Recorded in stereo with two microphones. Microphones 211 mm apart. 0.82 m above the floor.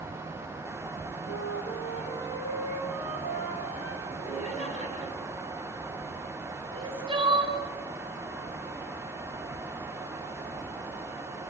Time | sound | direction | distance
1.3 | a flute | 80° left | 4 m
4.0 | laughter | 30° left (ahead or behind) | 6.5 m
6.7 | crying | 25° right (ahead or behind) | 3 m